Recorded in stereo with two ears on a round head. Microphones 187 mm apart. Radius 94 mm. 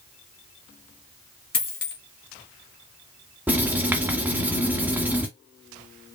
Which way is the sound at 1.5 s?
25° left (ahead or behind).